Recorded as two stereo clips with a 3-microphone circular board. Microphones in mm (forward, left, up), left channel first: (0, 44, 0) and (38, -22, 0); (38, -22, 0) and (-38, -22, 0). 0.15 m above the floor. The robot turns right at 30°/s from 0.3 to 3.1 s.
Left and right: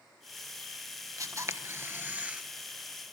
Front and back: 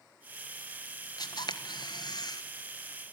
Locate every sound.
1.2 s a camera shutter: 20° right, 1.1 m; by 2.4 s 15° left, 1.1 m